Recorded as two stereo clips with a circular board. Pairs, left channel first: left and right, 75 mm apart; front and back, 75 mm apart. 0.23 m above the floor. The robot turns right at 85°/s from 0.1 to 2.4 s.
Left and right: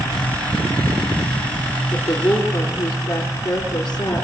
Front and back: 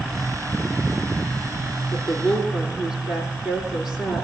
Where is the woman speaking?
60° left, 3.5 m; by 4.2 s 100° left, 3.5 m.